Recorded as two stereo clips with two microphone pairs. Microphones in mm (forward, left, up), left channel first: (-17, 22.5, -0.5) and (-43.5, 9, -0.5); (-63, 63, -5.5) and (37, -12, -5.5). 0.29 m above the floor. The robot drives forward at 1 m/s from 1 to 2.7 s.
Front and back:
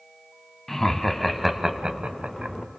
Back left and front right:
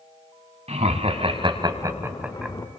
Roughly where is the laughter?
Ahead right.